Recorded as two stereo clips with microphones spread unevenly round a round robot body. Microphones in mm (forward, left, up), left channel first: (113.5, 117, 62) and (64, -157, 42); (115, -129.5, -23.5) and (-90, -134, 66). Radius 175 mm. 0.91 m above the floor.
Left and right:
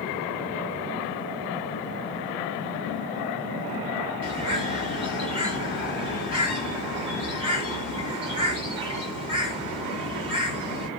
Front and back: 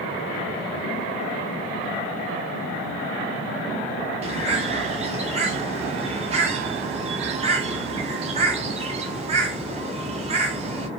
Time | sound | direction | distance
4.2 | a bird | 175° right | 0.5 m